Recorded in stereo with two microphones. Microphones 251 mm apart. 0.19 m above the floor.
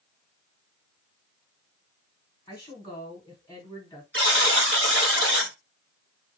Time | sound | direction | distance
2.5 | a woman speaking | 15° left (ahead or behind) | 1.3 m
4.1 | a buzzer | 55° right (ahead or behind) | 1.7 m